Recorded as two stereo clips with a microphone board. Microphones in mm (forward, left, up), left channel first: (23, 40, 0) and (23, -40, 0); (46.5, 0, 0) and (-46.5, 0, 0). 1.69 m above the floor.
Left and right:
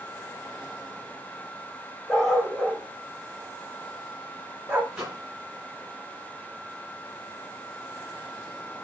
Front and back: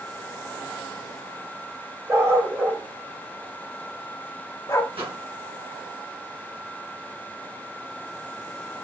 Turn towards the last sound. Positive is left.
turn(degrees=180)